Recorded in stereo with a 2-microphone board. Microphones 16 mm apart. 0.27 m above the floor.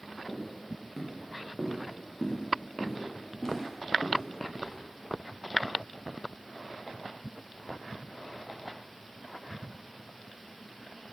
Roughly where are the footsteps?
Centre.